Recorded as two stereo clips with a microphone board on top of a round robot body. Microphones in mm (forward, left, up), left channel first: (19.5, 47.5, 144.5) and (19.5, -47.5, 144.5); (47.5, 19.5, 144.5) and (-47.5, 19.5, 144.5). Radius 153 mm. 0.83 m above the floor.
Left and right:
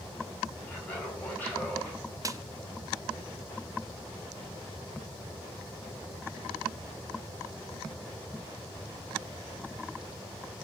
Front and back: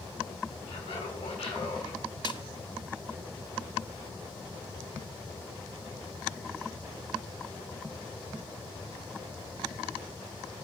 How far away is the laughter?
About 8 m.